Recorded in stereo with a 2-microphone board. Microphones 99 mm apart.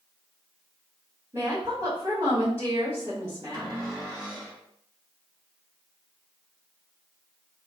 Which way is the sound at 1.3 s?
40° right (ahead or behind).